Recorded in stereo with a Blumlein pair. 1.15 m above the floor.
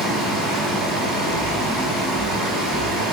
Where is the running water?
35° right, 4.5 m.